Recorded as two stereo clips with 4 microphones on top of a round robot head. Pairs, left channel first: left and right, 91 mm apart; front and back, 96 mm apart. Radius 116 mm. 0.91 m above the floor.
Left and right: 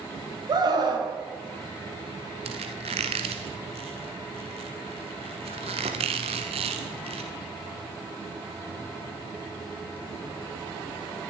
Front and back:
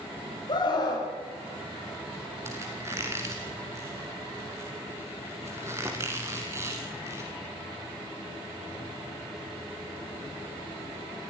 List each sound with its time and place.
0.5 s a scream: 50° right, 6 m
2.5 s a squeak: 110° right, 1.0 m